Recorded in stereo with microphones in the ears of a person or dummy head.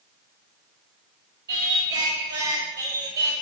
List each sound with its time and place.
1.5 s singing: 15° right (ahead or behind), 0.7 m